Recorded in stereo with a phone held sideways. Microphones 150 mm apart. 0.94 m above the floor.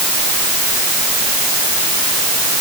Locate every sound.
Only background noise.